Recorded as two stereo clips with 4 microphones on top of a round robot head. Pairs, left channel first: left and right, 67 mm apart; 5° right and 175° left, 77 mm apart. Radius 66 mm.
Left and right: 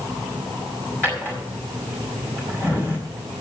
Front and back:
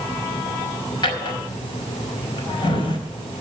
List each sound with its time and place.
1.0 s a drawer: 20° left, 4.5 m